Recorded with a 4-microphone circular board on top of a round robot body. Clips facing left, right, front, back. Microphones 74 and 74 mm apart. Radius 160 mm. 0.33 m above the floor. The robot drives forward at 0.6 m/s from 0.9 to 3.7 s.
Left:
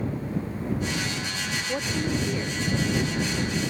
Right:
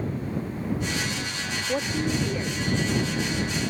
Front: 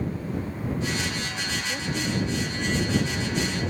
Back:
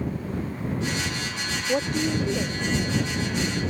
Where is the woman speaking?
165° right; by 2.6 s 170° right.